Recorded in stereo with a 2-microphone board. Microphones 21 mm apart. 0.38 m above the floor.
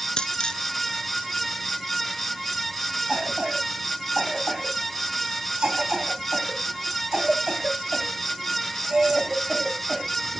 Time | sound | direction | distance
0.2 | a dropped coin | 40° left (ahead or behind) | 1.0 m
3.1 | a cough | 45° right (ahead or behind) | 3 m